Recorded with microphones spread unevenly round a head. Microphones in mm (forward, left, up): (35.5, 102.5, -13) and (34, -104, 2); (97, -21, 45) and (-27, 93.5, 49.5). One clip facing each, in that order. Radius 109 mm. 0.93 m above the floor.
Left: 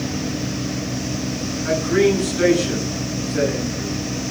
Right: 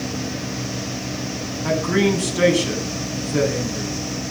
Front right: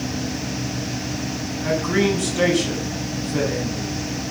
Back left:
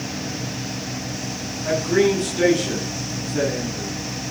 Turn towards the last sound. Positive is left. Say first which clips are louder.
# left 2 dB, back left 2 dB
turn(degrees=-75)